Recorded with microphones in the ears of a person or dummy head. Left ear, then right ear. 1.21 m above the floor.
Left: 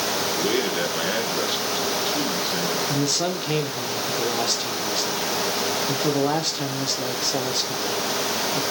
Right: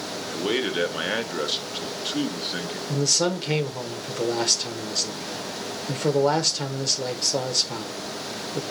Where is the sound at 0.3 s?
10° right (ahead or behind), 0.8 m.